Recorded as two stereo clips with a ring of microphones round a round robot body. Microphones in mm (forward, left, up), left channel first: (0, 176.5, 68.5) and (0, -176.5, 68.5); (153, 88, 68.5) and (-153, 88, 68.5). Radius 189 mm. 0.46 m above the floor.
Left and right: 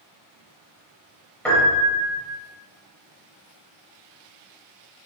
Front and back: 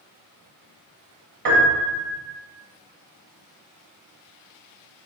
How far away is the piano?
About 1.7 m.